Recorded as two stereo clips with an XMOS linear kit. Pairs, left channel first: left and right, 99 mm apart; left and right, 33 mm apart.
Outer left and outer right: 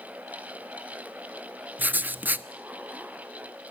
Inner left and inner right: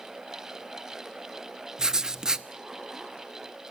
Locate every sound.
1.8 s writing: 20° right (ahead or behind), 0.9 m